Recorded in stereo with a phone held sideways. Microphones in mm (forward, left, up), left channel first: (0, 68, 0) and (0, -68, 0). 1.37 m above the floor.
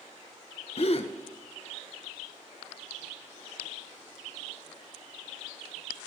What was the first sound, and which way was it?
A gasp, 50° left (ahead or behind).